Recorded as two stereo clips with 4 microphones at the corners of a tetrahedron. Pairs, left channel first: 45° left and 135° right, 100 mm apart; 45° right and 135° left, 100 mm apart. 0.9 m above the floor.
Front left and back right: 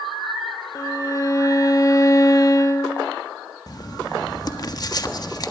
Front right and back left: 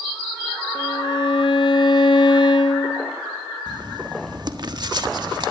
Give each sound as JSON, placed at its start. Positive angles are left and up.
{"t": 0.8, "sound": "a violin", "azimuth_deg": -10, "distance_m": 1.6}
{"t": 3.7, "sound": "writing", "azimuth_deg": 95, "distance_m": 1.4}